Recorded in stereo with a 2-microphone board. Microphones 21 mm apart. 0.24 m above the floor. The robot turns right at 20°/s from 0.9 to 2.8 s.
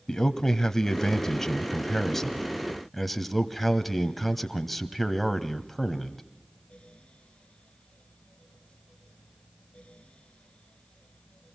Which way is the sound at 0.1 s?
25° left (ahead or behind).